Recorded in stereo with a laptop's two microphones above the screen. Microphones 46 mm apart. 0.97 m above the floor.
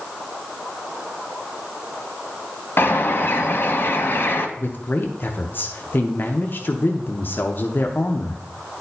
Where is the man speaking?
45° left (ahead or behind), 0.6 m.